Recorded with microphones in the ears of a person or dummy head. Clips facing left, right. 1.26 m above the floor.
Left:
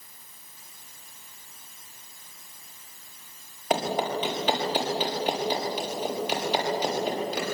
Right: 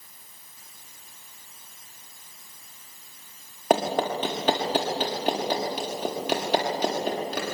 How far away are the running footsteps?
About 6 m.